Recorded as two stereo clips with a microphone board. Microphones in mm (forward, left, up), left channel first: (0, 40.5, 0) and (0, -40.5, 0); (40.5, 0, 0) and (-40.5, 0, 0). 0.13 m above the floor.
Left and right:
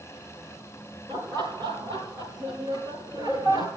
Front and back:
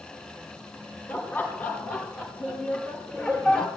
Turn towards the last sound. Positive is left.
turn(degrees=-80)